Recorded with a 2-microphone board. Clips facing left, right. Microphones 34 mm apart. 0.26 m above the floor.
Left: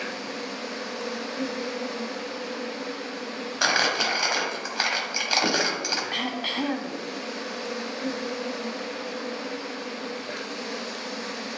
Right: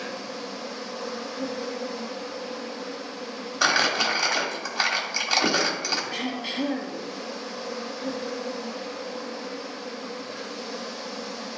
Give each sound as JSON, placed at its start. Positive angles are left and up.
{"t": 0.0, "sound": "an insect", "side_deg": 65, "distance_m": 1.0}
{"t": 3.6, "sound": "crumpling", "side_deg": 5, "distance_m": 1.1}
{"t": 6.1, "sound": "throat clearing", "side_deg": 40, "distance_m": 0.8}